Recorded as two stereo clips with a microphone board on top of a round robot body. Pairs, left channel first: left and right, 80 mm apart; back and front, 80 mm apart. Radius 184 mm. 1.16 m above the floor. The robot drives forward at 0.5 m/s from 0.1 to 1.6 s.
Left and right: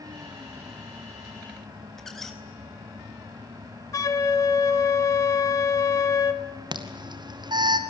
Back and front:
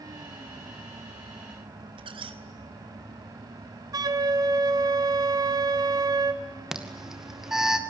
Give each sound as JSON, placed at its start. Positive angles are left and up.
{"t": 2.0, "sound": "a squeak", "azimuth_deg": 5, "distance_m": 1.1}
{"t": 3.9, "sound": "a flute", "azimuth_deg": 40, "distance_m": 1.4}
{"t": 6.7, "sound": "an alarm", "azimuth_deg": -85, "distance_m": 2.5}